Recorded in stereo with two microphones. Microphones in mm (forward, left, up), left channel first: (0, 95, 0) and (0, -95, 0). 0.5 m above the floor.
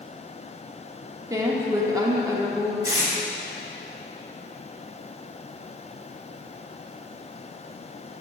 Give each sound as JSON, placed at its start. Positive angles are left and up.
{"t": 1.3, "sound": "a woman speaking", "side_deg": -20, "distance_m": 0.7}
{"t": 2.8, "sound": "tape being pulled", "side_deg": -15, "distance_m": 1.2}